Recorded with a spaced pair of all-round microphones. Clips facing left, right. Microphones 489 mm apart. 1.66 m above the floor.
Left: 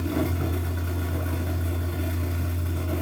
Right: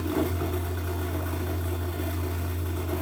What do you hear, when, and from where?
0.0 s a fan: 45° left (ahead or behind), 5 m